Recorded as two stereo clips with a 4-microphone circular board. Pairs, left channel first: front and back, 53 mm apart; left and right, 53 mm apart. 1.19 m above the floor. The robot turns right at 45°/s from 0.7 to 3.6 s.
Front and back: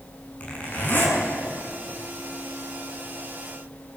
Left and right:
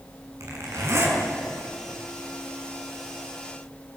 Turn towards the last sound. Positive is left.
turn(degrees=65)